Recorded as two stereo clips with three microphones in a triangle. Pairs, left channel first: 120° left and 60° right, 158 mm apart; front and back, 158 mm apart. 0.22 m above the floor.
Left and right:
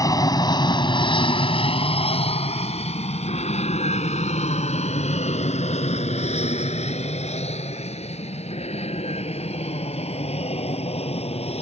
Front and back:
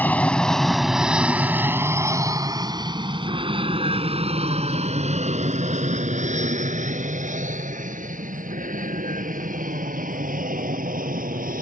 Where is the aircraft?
70° left; by 11.6 s 165° left.